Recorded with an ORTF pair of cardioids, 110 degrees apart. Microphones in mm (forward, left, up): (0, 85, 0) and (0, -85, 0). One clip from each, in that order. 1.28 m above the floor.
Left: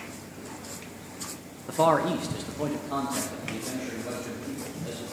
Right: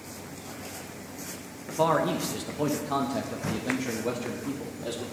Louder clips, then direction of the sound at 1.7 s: Left 2 dB; 25° left.